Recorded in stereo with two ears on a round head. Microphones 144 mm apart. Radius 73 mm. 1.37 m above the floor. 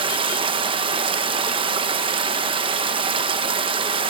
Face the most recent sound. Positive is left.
turn(degrees=-35)  # may be behind; listen again after turning